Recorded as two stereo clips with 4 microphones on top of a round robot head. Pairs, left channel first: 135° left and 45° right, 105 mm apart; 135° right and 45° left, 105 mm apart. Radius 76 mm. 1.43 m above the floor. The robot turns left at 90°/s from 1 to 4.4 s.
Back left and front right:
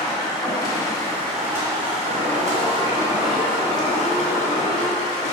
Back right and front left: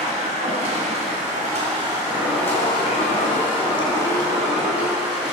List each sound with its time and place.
0.0 s running water: 70° left, 2 m; by 5.3 s 125° left, 2 m
2.1 s an alarm: 75° right, 2.5 m; by 5.0 s 70° left, 2.5 m